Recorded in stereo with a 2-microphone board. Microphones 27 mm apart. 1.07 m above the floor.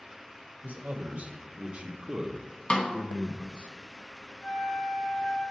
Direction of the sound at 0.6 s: 60° right (ahead or behind).